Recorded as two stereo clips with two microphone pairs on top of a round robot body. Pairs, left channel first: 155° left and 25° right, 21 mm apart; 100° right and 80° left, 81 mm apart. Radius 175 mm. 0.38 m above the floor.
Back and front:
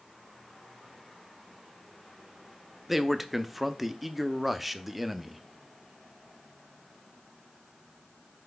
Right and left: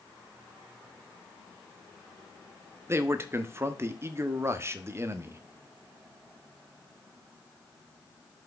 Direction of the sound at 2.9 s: 50° left.